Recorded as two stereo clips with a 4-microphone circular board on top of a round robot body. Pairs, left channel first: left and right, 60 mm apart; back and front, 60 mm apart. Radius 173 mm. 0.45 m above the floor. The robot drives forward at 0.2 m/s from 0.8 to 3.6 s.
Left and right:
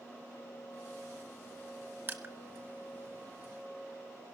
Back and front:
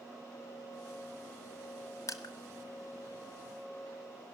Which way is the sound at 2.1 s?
145° right.